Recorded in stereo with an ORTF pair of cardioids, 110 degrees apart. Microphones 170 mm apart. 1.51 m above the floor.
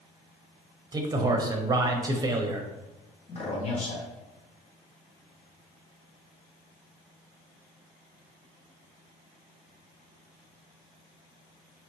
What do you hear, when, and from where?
0.9 s a man speaking: 20° right, 0.9 m
3.3 s a man speaking: 40° left, 1.8 m